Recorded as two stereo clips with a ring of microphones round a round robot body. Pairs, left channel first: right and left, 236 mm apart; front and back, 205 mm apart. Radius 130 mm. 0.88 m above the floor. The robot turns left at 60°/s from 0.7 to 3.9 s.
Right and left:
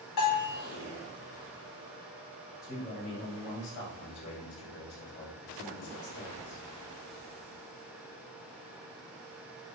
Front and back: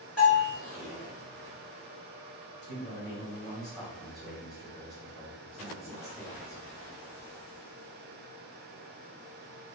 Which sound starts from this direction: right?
A bell, at 0.2 s.